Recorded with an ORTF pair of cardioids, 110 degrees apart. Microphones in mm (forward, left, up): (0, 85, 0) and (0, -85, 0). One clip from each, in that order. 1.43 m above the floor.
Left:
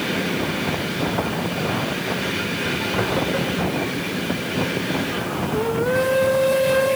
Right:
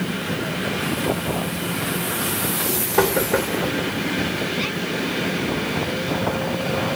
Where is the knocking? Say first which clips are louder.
Right 7 dB; 55° right, 4 m.